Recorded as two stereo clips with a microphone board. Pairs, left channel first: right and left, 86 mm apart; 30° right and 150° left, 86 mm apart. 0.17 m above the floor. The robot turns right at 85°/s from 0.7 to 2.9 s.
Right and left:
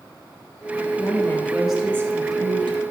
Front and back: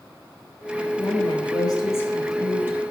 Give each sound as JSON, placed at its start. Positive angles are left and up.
{"t": 1.0, "sound": "a woman speaking", "azimuth_deg": -55, "distance_m": 3.0}